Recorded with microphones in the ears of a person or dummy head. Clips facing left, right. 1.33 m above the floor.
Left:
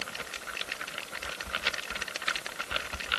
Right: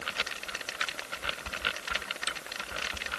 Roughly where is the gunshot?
No gunshot in this recording.